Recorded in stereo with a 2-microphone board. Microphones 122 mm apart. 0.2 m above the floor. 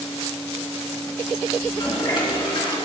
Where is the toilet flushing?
40° left (ahead or behind), 3 m.